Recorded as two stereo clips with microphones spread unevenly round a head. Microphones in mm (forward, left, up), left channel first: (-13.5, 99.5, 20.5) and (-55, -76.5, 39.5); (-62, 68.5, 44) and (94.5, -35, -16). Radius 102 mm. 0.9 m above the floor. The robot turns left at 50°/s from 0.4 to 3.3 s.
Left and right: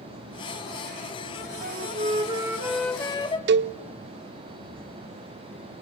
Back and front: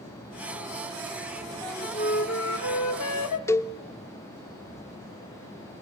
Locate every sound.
1.6 s a flute: 135° right, 1.7 m; by 3.4 s 140° left, 1.7 m
3.5 s a cowbell: 135° right, 0.6 m